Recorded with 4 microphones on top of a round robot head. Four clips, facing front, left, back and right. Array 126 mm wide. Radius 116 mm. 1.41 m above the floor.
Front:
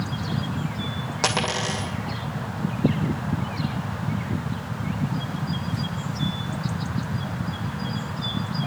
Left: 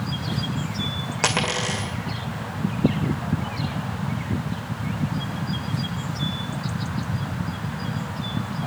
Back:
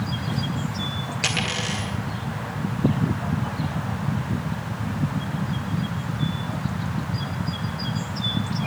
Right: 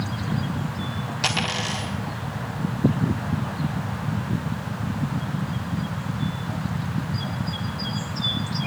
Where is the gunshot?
No gunshot in this recording.